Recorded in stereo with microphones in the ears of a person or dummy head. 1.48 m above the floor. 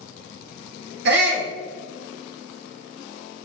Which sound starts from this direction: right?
A shout, at 1.1 s.